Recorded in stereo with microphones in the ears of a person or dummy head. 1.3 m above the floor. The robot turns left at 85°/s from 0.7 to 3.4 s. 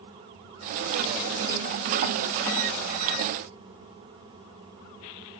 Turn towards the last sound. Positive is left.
No sound to turn to.